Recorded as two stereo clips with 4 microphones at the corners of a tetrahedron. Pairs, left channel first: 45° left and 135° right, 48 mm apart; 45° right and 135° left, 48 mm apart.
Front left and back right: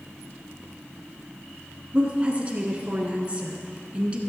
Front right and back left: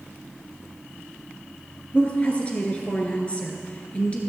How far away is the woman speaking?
About 1.6 m.